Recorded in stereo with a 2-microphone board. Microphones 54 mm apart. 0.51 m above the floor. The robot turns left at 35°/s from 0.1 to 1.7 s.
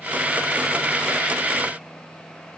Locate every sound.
Only background noise.